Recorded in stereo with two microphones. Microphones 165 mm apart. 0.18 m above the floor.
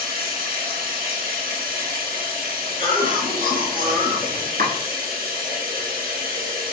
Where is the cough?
55° right (ahead or behind), 2 m.